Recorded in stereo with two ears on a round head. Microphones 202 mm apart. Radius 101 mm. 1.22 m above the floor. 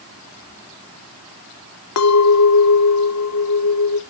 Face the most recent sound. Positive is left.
turn(degrees=75)  # may be behind; listen again after turning